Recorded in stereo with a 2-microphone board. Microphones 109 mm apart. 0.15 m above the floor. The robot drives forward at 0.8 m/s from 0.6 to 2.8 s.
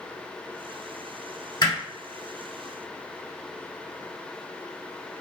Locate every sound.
1.6 s hammering: 45° left (ahead or behind), 2.5 m